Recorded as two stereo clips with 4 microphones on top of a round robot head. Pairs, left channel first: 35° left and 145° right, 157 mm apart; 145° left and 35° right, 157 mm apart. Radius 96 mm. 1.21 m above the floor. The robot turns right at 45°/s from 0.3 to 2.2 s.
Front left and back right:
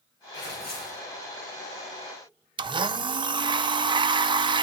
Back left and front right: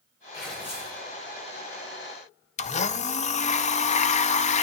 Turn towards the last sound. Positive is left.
turn(degrees=165)